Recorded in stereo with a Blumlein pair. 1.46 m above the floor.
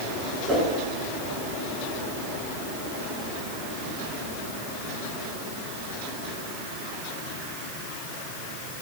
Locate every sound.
0.5 s a whoosh: 15° right, 4.5 m